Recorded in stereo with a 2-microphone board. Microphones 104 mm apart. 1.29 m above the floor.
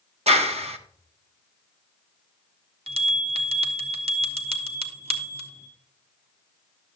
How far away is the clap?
About 0.7 m.